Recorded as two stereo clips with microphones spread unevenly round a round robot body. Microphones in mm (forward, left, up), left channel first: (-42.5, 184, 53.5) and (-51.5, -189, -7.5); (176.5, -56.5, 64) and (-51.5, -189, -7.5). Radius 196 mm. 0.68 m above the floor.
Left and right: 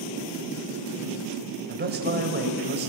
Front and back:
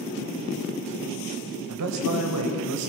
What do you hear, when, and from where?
1.7 s a man speaking: 155° right, 3 m